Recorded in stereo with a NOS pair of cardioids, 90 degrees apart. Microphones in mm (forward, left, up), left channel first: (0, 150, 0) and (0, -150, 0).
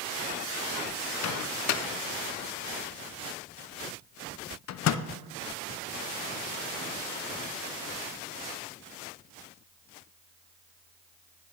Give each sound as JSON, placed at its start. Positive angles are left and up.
{"t": 1.2, "sound": "a microwave", "azimuth_deg": 55, "distance_m": 0.5}